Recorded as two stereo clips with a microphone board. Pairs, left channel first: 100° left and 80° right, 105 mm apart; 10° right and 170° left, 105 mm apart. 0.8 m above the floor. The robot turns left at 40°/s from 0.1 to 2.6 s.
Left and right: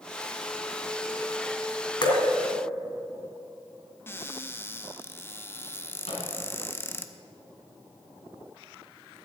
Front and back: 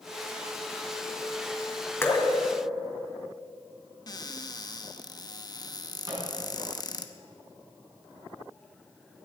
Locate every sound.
2.0 s dripping: 55° left, 2 m; by 2.2 s 45° left, 2 m
4.1 s a cupboard door: 35° left, 0.8 m
6.1 s a microwave: 115° left, 6 m